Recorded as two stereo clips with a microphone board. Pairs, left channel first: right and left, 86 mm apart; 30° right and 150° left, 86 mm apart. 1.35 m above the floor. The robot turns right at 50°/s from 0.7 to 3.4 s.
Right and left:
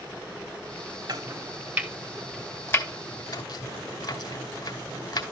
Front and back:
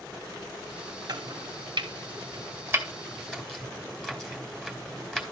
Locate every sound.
1.1 s chopping: 130° left, 2.5 m; by 5.2 s 115° right, 2.5 m